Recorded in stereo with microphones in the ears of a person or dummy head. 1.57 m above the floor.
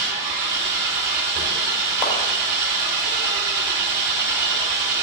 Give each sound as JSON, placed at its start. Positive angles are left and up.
{"t": 0.0, "sound": "an engine running", "side_deg": -15, "distance_m": 0.8}
{"t": 2.0, "sound": "a clap", "side_deg": 50, "distance_m": 3.5}